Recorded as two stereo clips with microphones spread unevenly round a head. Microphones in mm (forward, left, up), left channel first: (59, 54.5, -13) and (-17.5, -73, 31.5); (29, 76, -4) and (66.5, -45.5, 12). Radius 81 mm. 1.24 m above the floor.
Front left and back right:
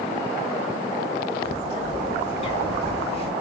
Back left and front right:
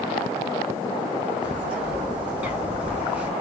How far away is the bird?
About 1.8 m.